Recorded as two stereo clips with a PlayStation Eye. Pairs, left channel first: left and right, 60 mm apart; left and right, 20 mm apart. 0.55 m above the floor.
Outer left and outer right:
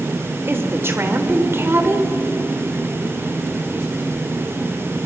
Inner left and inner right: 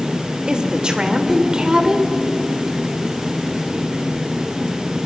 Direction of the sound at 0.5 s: 40° right (ahead or behind).